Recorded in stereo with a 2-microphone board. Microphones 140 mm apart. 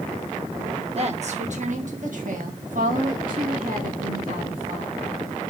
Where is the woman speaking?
50° right (ahead or behind), 1.3 m; by 5.0 s 80° right, 3 m.